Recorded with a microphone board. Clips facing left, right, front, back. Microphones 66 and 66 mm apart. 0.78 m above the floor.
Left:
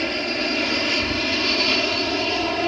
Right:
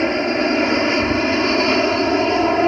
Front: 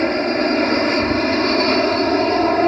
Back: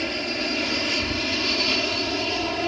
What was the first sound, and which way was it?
An aircraft, 35° right.